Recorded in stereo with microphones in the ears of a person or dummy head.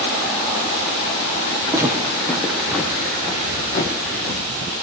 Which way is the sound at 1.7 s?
15° right (ahead or behind).